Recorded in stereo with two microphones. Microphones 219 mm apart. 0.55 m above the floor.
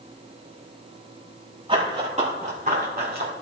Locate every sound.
1.7 s running footsteps: 25° right (ahead or behind), 5.5 m; by 3.3 s 45° right (ahead or behind), 4 m